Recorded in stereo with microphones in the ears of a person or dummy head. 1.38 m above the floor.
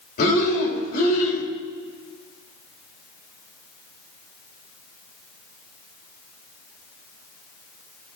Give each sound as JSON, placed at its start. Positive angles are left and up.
{"t": 0.2, "sound": "breathing", "side_deg": 50, "distance_m": 3.0}